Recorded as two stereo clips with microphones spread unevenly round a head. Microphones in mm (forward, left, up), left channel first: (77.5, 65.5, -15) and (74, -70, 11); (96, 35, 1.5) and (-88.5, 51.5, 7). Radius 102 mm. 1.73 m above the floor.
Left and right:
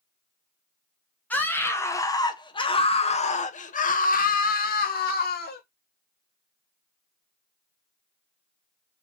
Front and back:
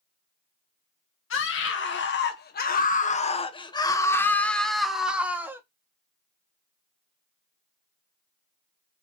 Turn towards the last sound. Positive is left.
turn(degrees=95)